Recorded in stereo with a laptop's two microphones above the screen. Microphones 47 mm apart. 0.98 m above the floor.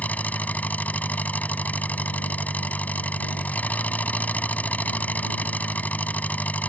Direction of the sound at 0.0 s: 35° left (ahead or behind).